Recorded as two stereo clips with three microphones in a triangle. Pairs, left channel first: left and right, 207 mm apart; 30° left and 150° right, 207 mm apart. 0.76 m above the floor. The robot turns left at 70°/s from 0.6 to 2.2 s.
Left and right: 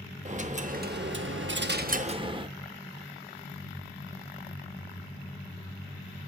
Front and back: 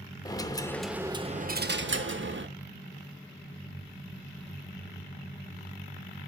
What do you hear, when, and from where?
0.2 s a dropped coin: 45° right, 0.6 m; by 2.5 s 155° right, 0.6 m